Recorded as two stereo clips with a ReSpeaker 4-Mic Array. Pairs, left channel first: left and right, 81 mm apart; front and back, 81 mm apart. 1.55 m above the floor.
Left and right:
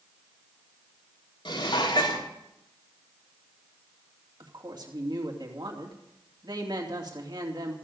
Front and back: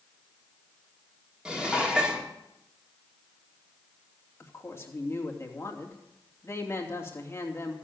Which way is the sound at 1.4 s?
100° left.